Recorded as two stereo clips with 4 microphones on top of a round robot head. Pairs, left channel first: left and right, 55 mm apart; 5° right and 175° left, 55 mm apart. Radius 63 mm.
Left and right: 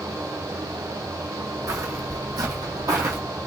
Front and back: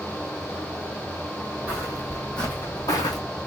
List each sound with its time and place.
1.7 s footsteps: 110° right, 1.3 m; by 3.2 s 35° right, 0.9 m